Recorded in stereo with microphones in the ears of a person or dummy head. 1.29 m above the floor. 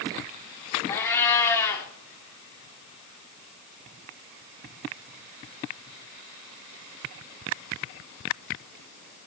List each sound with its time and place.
0.9 s a cat meowing: 15° left (ahead or behind), 1.4 m